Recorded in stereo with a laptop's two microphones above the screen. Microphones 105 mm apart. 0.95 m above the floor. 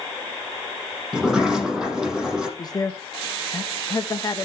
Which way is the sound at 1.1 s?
5° right (ahead or behind).